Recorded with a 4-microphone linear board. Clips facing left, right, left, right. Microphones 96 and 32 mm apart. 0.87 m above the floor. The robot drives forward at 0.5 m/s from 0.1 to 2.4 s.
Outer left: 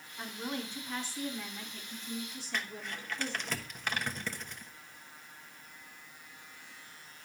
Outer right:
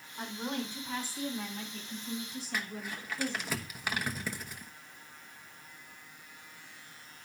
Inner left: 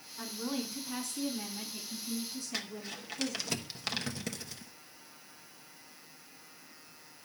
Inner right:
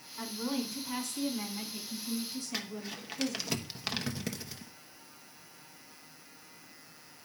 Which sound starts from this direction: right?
A woman speaking, at 0.2 s.